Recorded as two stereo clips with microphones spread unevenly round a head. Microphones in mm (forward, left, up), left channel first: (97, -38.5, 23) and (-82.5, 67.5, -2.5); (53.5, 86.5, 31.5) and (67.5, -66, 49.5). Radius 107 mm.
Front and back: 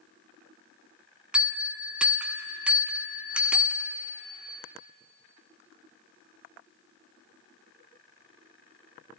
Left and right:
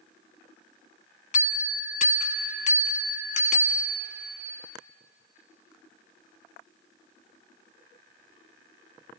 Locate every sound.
1.3 s a bell: 60° left, 0.9 m